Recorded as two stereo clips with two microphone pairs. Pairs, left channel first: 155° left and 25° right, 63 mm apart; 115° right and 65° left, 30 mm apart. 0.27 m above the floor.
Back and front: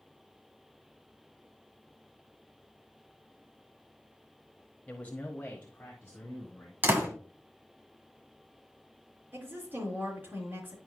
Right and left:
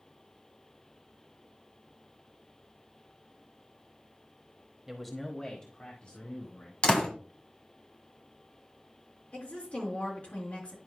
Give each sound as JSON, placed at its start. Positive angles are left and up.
{"t": 4.9, "sound": "a man speaking", "azimuth_deg": 130, "distance_m": 1.1}
{"t": 6.8, "sound": "a door slam", "azimuth_deg": -75, "distance_m": 1.6}
{"t": 9.3, "sound": "a woman speaking", "azimuth_deg": -80, "distance_m": 3.5}